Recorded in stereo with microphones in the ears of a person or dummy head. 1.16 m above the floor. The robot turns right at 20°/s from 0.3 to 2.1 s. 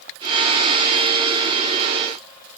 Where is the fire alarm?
No fire alarm in this recording.